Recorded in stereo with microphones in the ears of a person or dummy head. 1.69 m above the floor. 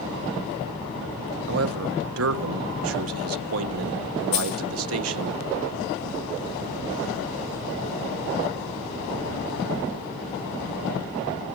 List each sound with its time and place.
1.5 s a man speaking: 75° right (ahead or behind), 1.5 m
4.3 s a dropped coin: 30° left (ahead or behind), 1.7 m